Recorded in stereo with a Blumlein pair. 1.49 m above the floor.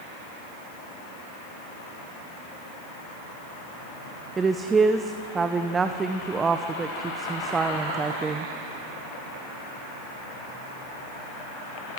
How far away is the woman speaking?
About 0.9 m.